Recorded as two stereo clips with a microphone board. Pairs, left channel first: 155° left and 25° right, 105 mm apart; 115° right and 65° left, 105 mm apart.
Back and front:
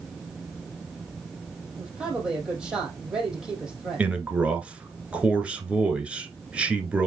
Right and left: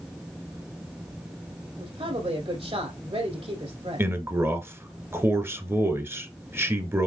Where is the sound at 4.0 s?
40° left, 1.3 m.